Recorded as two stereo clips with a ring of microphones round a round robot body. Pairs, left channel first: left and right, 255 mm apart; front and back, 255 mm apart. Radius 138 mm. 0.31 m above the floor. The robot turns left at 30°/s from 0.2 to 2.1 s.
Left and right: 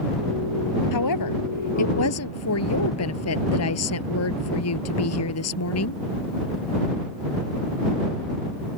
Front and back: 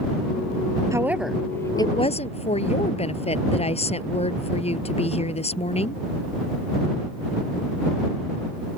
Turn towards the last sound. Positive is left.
turn(degrees=65)